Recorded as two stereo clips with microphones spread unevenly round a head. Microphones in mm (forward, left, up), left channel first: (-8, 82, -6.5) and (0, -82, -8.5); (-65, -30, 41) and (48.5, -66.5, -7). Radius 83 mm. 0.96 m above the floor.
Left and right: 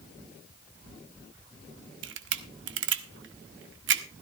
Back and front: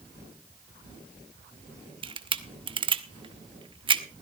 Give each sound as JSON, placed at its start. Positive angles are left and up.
{"t": 2.0, "sound": "a camera shutter", "azimuth_deg": -65, "distance_m": 1.0}